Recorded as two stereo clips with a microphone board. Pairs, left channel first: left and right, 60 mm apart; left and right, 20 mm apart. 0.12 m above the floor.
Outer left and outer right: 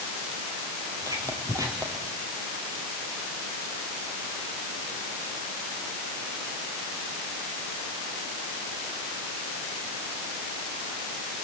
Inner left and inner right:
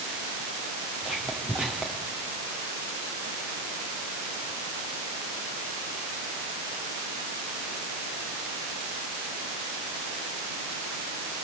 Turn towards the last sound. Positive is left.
turn(degrees=-80)